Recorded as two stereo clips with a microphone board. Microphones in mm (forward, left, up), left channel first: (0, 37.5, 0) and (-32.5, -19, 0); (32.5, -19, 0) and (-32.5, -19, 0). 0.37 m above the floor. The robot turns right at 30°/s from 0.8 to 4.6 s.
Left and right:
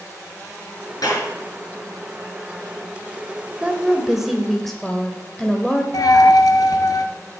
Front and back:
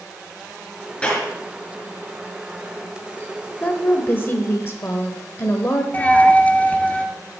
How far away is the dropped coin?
About 1.0 m.